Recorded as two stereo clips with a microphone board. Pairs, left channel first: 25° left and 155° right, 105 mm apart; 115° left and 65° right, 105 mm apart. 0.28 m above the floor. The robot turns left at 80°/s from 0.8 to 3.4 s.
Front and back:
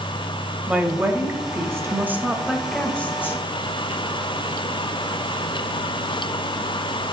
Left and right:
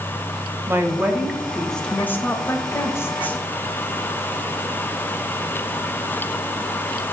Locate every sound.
0.7 s a woman speaking: 100° right, 0.9 m; by 3.4 s 55° left, 0.9 m